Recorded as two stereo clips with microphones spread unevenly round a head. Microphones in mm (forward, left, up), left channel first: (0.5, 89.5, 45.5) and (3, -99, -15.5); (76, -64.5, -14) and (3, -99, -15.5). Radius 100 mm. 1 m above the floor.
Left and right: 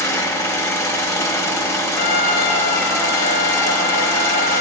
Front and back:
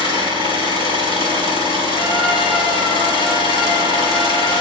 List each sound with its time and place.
0.0 s an engine running: 165° left, 2.5 m
2.0 s a trumpet: 135° left, 3.5 m